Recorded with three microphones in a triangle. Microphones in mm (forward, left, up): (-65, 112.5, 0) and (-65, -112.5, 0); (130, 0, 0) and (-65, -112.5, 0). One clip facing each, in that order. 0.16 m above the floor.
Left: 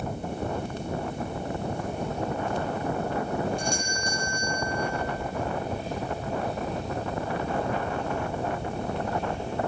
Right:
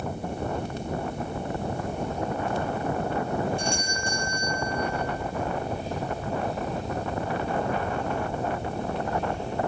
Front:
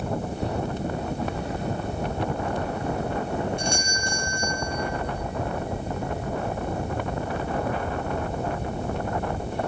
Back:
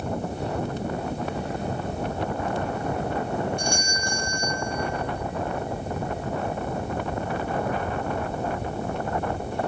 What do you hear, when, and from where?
3.6 s a doorbell: 85° left, 2 m